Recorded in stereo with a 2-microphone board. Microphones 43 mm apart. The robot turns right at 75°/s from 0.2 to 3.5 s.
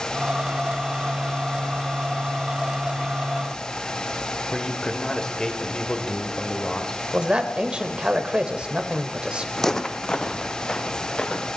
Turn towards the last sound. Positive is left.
turn(degrees=20)  # may be behind; listen again after turning